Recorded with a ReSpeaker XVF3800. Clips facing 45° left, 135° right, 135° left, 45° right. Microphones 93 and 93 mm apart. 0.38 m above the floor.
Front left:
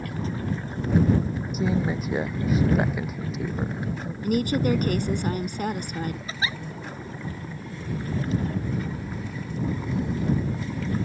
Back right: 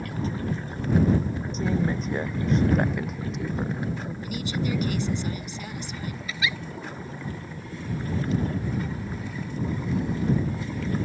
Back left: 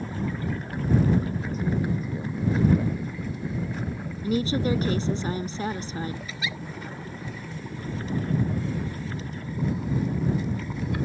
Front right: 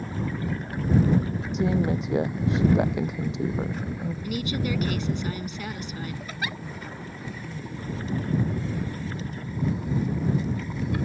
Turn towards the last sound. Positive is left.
turn(degrees=-10)